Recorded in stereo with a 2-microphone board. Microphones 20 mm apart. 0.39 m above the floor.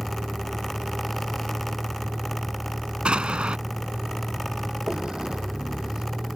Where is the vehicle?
40° right (ahead or behind).